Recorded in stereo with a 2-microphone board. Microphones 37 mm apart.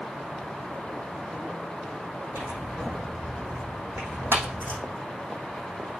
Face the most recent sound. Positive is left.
turn(degrees=-80)